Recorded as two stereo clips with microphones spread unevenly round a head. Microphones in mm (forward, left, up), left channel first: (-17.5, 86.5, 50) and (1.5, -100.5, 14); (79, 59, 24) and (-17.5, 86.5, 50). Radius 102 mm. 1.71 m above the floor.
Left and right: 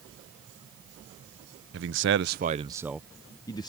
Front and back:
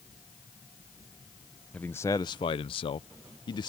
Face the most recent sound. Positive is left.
turn(degrees=35)